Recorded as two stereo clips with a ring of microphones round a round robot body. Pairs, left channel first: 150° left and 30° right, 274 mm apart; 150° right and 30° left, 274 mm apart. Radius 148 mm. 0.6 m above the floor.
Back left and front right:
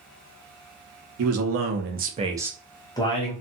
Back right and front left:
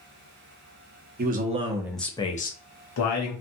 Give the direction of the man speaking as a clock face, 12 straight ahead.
1 o'clock.